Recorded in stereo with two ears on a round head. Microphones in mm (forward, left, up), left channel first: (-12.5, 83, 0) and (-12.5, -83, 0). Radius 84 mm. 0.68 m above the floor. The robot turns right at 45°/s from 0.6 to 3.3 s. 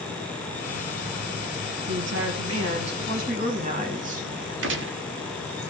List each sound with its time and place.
1.9 s a woman speaking: 110° right, 4.5 m; by 4.5 s 45° right, 4.5 m
4.6 s a gunshot: 70° right (ahead or behind), 1.6 m